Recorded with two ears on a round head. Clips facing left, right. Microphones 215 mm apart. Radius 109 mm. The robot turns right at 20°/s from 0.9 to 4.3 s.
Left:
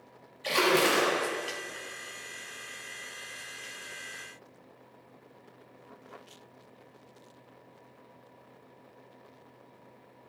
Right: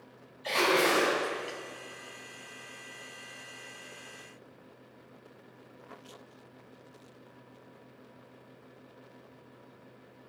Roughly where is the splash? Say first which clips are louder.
Left 1 dB; left.